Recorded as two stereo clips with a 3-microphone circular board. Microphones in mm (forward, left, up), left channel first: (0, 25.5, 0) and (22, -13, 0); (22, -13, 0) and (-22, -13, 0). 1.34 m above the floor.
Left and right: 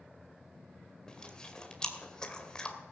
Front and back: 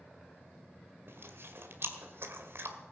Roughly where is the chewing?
Behind.